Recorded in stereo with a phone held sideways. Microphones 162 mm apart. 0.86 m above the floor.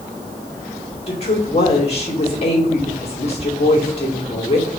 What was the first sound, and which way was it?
A woman speaking, 40° left (ahead or behind).